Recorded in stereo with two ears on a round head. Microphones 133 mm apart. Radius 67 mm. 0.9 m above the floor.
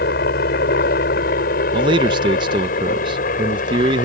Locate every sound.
0.0 s a helicopter: 65° left (ahead or behind); by 4.0 s 55° left (ahead or behind)
1.7 s a man speaking: 30° right (ahead or behind)